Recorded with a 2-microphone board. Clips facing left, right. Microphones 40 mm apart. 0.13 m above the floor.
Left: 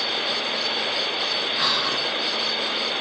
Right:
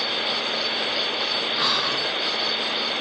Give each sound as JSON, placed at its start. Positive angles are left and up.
{"t": 1.6, "sound": "whispering", "side_deg": -30, "distance_m": 1.2}